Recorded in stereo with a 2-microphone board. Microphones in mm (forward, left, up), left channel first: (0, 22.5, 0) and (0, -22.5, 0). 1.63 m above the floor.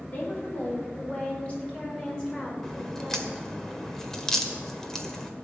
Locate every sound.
0.1 s a woman speaking: 40° left (ahead or behind), 5.5 m; by 3.4 s 10° left (ahead or behind), 6 m
2.6 s a crack: 10° left (ahead or behind), 1.6 m